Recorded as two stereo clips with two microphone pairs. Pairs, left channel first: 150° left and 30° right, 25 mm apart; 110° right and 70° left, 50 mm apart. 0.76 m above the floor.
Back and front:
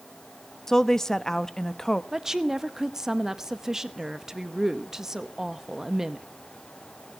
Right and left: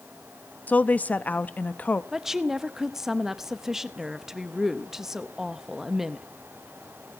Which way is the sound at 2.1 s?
5° left.